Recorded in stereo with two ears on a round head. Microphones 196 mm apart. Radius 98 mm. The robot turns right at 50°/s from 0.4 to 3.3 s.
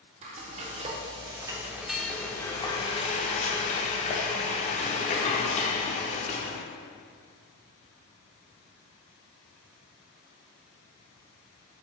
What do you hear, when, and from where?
0.2 s frying: 80° right, 0.5 m; by 6.6 s 65° left, 0.5 m